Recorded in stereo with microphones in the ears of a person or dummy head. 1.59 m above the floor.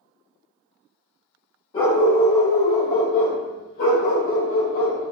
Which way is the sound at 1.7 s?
30° left (ahead or behind).